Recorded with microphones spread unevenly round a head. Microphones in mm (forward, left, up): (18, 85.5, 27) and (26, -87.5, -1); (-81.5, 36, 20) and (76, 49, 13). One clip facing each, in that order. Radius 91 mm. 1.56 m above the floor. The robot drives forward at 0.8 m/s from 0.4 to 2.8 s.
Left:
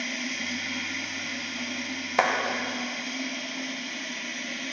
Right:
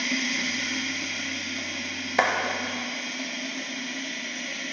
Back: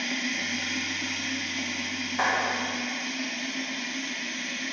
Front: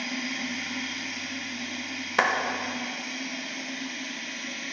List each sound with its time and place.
0.0 s running water: 110° right, 0.8 m; by 4.7 s 160° right, 2.5 m
2.2 s a clap: straight ahead, 1.0 m